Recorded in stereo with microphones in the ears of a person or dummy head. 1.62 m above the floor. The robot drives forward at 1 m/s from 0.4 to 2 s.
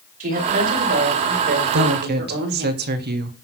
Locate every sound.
0.2 s a woman speaking: 45° right (ahead or behind), 5.5 m; by 2.7 s 60° right (ahead or behind), 4.5 m
1.7 s a woman speaking: 60° right (ahead or behind), 1.0 m; by 3.4 s 50° right (ahead or behind), 1.2 m